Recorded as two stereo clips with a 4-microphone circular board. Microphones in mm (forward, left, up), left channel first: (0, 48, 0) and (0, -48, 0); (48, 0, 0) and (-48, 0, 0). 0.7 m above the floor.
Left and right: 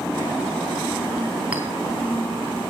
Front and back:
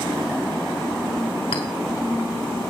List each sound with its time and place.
1.5 s a clink: 15° right, 3 m